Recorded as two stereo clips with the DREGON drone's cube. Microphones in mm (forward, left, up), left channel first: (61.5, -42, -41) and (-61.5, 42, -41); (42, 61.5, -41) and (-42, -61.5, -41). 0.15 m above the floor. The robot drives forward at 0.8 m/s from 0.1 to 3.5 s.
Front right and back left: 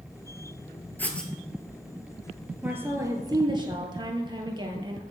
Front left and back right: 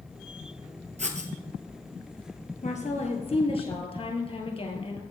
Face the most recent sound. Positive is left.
turn(degrees=95)